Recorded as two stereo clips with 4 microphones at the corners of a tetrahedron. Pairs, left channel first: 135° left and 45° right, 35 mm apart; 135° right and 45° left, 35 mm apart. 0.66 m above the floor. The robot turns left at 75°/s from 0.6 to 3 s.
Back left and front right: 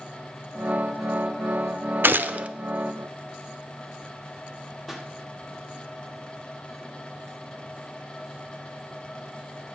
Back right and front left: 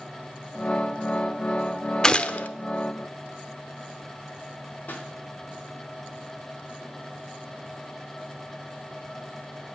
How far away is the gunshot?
About 0.7 m.